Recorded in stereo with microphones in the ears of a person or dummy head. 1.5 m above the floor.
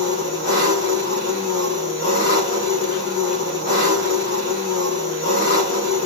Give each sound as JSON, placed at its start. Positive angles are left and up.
{"t": 0.0, "sound": "an engine running", "side_deg": 35, "distance_m": 2.0}